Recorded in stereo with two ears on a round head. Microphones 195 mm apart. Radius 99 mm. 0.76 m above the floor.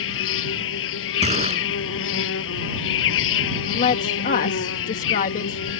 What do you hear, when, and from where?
0.0 s an insect: 65° left (ahead or behind)
1.2 s a gunshot: 30° right (ahead or behind)
3.7 s a woman speaking: 40° left (ahead or behind)